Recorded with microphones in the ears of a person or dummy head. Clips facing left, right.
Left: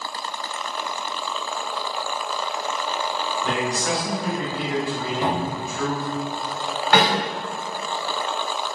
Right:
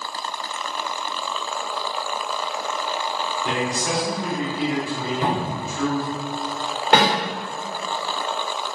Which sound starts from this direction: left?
A man speaking, at 3.4 s.